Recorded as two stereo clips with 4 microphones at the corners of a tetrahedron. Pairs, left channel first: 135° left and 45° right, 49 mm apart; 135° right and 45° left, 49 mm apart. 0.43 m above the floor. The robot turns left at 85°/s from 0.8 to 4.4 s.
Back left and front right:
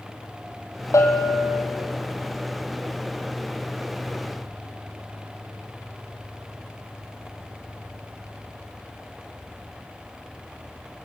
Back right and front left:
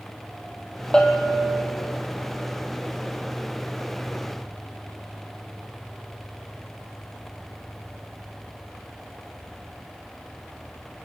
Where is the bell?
150° left, 3 m; by 1.6 s 90° left, 3 m.